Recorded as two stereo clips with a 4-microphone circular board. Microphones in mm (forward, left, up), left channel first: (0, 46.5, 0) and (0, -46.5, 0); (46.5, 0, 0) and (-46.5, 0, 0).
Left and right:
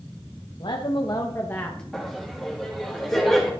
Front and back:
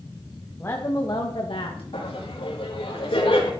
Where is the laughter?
5° left, 3 m.